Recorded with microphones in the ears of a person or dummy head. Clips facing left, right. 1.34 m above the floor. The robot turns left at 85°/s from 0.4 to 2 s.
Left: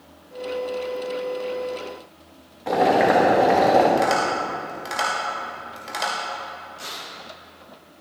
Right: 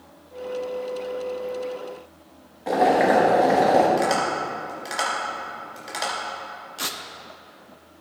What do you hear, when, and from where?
2.7 s boiling: 5° right (ahead or behind), 1.1 m
4.0 s tapping: centre (ahead or behind), 2.5 m
6.8 s tearing paper: 70° right (ahead or behind), 0.7 m